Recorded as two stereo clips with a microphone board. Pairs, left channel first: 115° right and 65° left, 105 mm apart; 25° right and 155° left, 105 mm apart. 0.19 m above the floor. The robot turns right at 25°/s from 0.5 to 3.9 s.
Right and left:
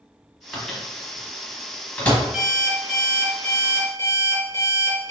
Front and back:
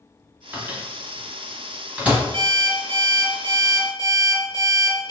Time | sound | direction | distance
0.5 | a microwave | 165° left | 1.0 m
2.3 | an alarm clock | 150° left | 1.6 m